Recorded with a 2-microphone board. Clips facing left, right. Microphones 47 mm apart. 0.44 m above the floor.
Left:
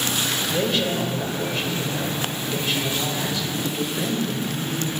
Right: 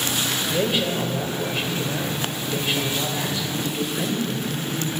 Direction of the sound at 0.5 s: 15° right (ahead or behind).